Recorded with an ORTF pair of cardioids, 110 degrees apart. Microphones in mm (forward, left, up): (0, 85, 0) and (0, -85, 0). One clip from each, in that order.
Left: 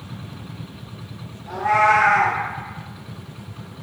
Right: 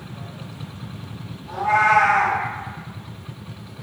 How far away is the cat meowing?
About 1.3 m.